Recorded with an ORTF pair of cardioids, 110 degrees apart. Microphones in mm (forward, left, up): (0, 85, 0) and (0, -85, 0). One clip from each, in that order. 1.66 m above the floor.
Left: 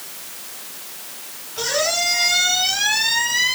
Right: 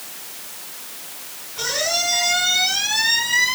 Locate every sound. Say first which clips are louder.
1.6 s a squeak: left 1 dB; 60° left, 5.5 m